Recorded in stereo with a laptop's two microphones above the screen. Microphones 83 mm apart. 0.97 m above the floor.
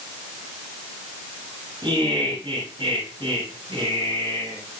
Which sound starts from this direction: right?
Laughter, at 1.8 s.